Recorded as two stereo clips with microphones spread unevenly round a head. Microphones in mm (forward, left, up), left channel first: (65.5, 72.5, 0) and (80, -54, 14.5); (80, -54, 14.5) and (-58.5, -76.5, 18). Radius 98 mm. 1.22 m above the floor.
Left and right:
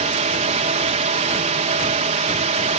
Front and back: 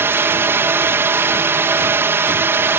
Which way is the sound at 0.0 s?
100° right.